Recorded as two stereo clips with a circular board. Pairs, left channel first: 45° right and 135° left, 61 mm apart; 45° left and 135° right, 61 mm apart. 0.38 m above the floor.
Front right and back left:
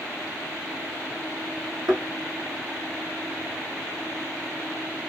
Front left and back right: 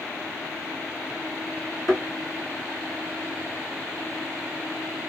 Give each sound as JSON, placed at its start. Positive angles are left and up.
{"t": 1.9, "sound": "a thud", "azimuth_deg": 135, "distance_m": 1.5}